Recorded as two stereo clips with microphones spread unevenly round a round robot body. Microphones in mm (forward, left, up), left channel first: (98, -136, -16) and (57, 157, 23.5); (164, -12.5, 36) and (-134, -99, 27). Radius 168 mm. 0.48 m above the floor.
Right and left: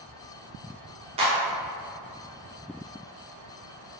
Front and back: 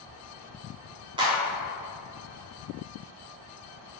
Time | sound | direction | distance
1.2 | a clap | 155° left | 0.8 m